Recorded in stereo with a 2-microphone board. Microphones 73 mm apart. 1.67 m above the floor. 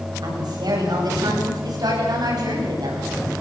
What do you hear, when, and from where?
0.2 s a woman speaking: 60° right (ahead or behind), 9 m